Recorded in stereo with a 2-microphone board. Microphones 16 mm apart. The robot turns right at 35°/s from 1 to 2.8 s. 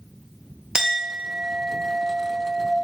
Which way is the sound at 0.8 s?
130° right.